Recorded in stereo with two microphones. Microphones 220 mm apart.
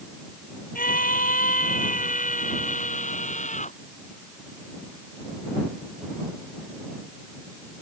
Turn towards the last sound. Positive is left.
turn(degrees=35)  # may be behind; listen again after turning